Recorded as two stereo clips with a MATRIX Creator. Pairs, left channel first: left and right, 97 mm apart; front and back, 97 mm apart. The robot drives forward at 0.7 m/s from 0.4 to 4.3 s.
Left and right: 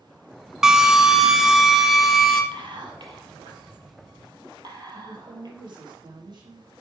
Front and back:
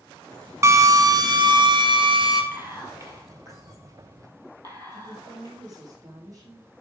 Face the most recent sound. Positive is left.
turn(degrees=-130)